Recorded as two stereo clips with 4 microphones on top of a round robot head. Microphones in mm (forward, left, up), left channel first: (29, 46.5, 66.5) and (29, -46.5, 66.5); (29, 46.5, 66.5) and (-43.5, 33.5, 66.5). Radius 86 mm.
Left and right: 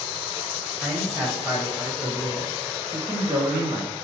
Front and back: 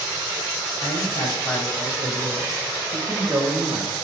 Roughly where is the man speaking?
Ahead right.